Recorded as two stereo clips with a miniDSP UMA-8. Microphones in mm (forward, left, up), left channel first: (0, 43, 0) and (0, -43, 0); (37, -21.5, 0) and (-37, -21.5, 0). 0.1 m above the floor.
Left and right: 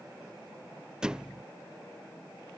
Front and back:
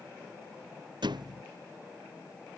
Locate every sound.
1.0 s a thud: 170° right